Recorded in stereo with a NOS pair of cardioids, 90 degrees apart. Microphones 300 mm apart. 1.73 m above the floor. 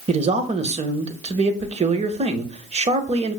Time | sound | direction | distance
0.1 | a man speaking | 20° right | 0.7 m